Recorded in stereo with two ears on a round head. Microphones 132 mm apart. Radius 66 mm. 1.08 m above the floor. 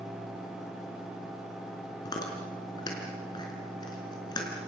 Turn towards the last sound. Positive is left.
turn(degrees=30)  # may be behind; listen again after turning